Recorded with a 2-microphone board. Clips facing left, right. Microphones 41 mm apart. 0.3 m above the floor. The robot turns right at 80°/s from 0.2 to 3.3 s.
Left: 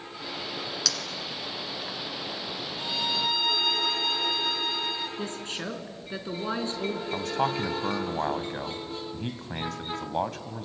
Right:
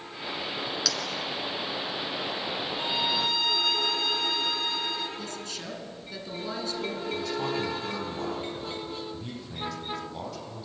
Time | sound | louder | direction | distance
0.8 | a clink | right 2 dB | 10° right (ahead or behind) | 1.8 m
2.7 | a violin | right 1 dB | 40° right | 1.9 m
5.2 | a woman speaking | left 3 dB | 35° left (ahead or behind) | 2.5 m
7.1 | a man speaking | left 3 dB | 50° left (ahead or behind) | 2 m